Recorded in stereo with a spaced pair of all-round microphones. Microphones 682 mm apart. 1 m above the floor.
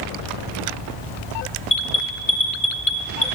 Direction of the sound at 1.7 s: 30° left (ahead or behind).